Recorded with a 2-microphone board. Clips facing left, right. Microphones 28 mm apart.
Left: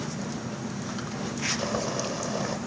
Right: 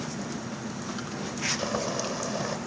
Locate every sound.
1.6 s boiling: 5° right (ahead or behind), 1.6 m